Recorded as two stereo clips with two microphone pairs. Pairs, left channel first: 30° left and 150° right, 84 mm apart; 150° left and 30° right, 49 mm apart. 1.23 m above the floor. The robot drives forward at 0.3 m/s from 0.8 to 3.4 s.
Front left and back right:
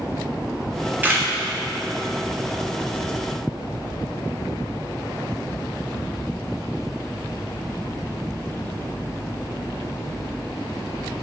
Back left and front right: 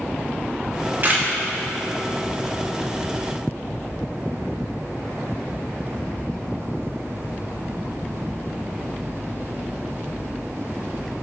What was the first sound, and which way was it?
A camera shutter, 75° right.